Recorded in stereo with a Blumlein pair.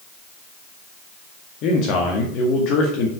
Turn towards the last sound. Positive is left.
turn(degrees=40)